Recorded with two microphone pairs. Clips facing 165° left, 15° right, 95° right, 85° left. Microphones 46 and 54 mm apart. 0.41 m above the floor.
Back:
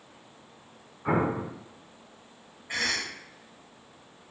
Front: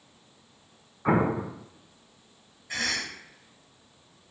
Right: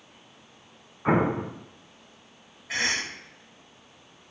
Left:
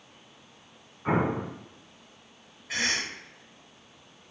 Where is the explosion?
55° right, 0.5 m.